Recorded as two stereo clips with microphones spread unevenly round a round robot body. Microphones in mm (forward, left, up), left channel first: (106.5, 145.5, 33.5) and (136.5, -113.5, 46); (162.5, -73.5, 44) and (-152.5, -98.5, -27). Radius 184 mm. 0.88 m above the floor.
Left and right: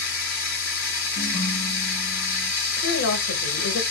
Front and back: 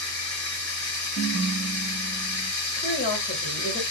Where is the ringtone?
70° left, 1.5 m.